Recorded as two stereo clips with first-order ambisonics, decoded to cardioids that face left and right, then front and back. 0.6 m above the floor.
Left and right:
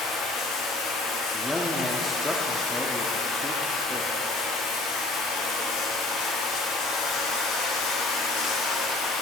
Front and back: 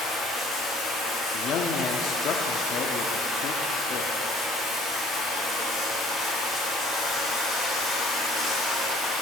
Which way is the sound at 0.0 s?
75° left.